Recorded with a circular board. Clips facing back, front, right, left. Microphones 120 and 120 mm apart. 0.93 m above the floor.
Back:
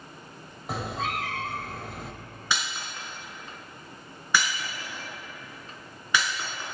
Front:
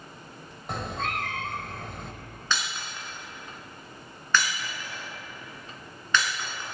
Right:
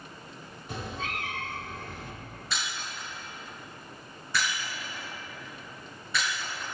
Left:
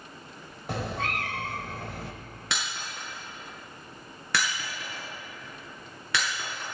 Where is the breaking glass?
100° left, 4.5 m.